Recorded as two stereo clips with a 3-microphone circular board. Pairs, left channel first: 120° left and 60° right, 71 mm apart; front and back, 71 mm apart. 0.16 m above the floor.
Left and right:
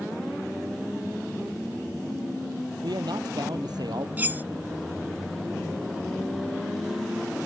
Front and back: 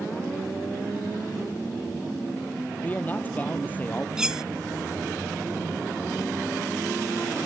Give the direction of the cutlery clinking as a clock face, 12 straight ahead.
3 o'clock.